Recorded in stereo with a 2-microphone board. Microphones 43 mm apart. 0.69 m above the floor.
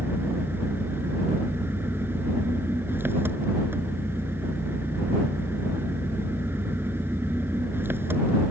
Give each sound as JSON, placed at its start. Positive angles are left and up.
{"t": 0.0, "sound": "an engine running", "side_deg": -60}